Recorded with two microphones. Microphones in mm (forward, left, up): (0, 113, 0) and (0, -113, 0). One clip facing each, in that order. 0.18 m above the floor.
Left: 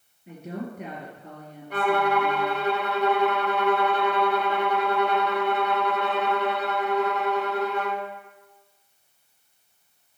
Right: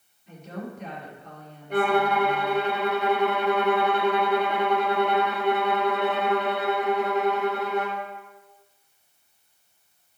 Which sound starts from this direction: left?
A woman speaking, at 0.3 s.